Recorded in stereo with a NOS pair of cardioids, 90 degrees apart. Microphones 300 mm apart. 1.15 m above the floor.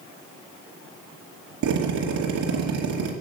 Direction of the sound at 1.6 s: 70° right.